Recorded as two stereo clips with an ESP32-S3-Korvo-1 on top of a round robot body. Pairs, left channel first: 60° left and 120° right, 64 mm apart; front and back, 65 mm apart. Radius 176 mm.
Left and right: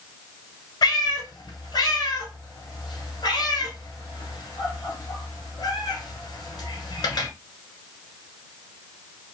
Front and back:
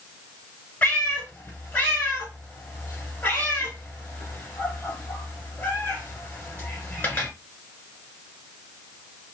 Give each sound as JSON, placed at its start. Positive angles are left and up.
{"t": 0.8, "sound": "a cat meowing", "azimuth_deg": 65, "distance_m": 1.4}